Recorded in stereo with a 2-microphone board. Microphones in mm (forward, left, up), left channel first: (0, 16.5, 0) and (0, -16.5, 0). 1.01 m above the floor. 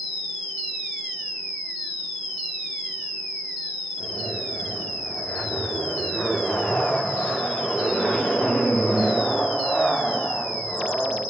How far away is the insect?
About 1.1 m.